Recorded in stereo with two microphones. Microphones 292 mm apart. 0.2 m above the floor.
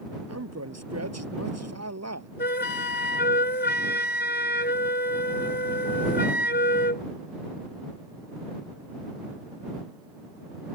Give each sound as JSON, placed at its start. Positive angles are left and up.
{"t": 0.3, "sound": "a man speaking", "side_deg": -60}
{"t": 2.4, "sound": "a flute", "side_deg": 35}